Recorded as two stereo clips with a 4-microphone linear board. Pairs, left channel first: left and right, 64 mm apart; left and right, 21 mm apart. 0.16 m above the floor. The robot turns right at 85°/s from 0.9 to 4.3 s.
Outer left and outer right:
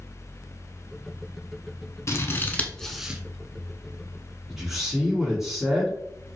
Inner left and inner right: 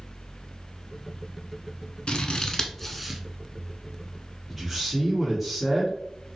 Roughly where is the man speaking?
Centre.